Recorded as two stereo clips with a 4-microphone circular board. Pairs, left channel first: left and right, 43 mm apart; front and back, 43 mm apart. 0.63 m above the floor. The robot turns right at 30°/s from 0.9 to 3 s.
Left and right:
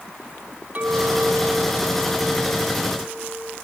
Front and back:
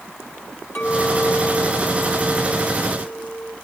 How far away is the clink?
About 4.5 m.